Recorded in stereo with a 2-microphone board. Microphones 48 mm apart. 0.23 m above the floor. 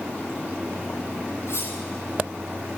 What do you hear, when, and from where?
1.5 s cutlery clinking: 60° left (ahead or behind), 4.5 m